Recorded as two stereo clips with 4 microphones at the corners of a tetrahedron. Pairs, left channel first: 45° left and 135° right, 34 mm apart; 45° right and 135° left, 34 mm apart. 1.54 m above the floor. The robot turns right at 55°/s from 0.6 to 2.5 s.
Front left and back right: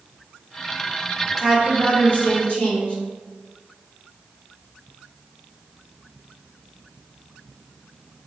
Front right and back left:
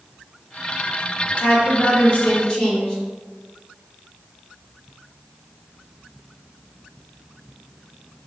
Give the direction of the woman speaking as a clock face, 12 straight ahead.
1 o'clock.